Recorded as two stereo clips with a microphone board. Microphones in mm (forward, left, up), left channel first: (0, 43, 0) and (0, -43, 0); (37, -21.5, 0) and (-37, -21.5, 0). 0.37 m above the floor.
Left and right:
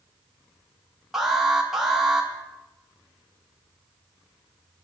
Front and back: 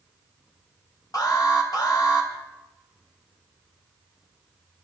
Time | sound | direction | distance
1.1 | an alarm | 5° right | 3 m